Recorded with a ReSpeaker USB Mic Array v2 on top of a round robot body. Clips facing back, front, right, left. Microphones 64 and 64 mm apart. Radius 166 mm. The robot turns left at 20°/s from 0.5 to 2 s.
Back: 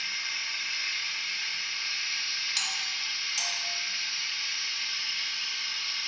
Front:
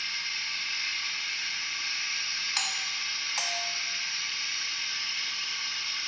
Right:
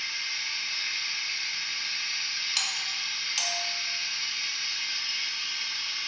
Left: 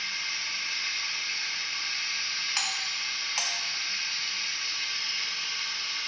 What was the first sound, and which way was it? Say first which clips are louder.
Running water: even, even; 100° left.